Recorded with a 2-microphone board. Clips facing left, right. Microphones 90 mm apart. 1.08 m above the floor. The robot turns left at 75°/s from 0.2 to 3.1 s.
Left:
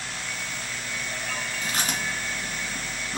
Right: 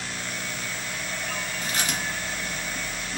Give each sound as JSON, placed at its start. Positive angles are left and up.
{"t": 1.6, "sound": "chewing", "side_deg": 20, "distance_m": 1.9}